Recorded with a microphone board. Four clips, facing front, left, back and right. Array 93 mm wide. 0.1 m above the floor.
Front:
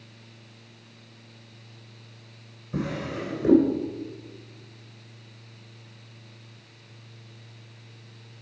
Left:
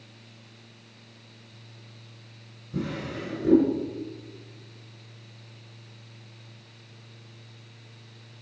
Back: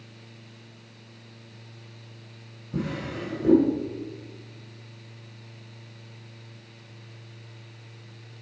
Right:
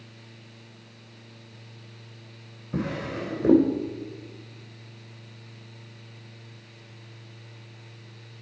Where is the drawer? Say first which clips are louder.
Right 2 dB, front 1 dB; 70° right, 2.5 m.